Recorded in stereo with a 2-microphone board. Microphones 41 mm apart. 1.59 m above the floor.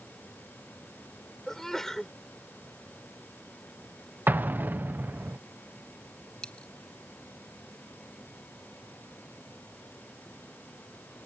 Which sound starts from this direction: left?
A dropped coin, at 6.4 s.